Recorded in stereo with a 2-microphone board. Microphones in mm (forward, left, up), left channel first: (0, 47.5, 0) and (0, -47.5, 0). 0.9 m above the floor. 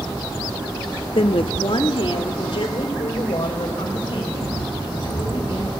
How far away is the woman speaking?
About 0.8 m.